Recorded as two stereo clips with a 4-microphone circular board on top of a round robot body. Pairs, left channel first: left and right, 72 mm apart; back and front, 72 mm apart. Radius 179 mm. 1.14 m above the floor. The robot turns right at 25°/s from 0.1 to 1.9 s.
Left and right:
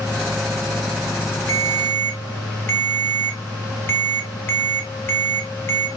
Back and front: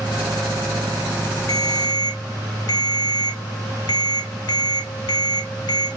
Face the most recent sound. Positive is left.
turn(degrees=150)